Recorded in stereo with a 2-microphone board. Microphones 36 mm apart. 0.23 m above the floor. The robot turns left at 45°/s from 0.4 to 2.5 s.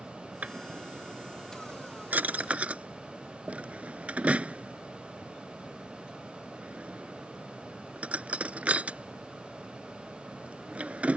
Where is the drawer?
45° right (ahead or behind); by 11.2 s 40° right (ahead or behind).